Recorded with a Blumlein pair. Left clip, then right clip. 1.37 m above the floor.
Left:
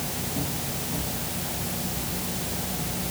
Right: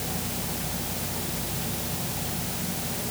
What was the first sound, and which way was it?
Only background noise.